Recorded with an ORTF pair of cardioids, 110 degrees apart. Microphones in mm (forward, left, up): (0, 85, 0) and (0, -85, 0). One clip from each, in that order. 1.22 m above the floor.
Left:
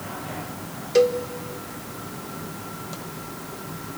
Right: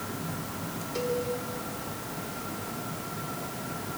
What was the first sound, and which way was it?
A cowbell, 65° left.